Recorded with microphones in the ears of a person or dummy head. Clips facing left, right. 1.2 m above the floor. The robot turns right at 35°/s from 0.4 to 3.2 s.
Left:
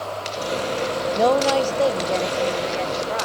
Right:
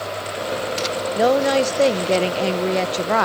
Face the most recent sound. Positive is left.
turn(degrees=-100)